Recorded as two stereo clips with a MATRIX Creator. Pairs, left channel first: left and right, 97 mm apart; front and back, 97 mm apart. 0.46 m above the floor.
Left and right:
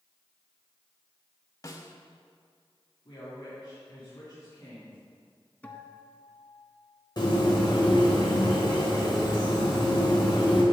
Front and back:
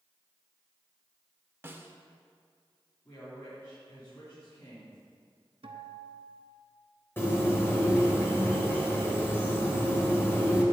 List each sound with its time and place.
1.6 s a snare drum: 125° left, 0.8 m
3.0 s a woman speaking: 45° left, 3.5 m
5.6 s a guitar: 165° left, 0.9 m
7.2 s a bird: 65° left, 1.8 m